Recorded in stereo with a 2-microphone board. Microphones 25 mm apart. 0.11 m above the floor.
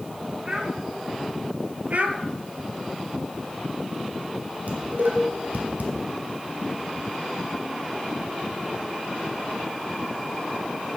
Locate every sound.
0.5 s a child speaking: 45° right (ahead or behind), 5 m
1.9 s a child speaking: 60° right (ahead or behind), 1.8 m
4.7 s dishes clattering: 70° right (ahead or behind), 3 m